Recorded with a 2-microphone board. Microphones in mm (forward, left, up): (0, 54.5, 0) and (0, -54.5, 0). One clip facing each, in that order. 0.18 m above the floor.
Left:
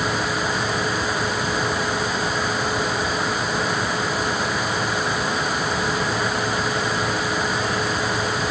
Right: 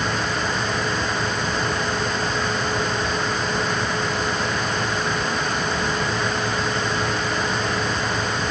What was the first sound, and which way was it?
Only background noise.